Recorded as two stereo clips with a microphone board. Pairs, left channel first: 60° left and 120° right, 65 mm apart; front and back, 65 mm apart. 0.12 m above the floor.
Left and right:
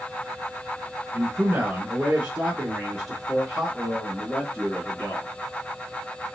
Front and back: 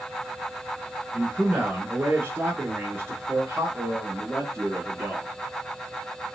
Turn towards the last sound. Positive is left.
turn(degrees=130)